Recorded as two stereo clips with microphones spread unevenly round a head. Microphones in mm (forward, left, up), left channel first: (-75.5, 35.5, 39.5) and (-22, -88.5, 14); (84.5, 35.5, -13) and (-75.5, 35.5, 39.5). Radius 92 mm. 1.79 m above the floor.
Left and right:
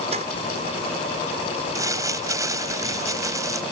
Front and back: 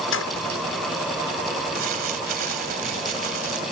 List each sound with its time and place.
0.1 s keys jangling: 5° right
1.8 s crumpling: 135° right